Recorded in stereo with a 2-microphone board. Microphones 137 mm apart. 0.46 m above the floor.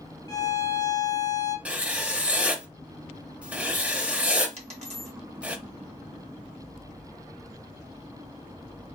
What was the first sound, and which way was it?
A violin, 30° left (ahead or behind).